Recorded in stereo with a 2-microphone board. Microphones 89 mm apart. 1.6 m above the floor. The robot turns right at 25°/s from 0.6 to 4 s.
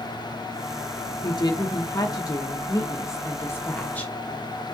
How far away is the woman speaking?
About 0.8 m.